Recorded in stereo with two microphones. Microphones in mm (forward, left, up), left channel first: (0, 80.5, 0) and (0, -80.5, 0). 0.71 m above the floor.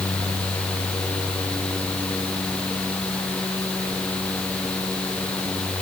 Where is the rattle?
I don't hear a rattle.